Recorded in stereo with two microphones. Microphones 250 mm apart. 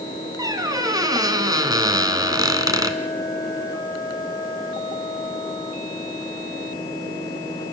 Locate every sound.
0.4 s a squeak: 15° right (ahead or behind), 1.7 m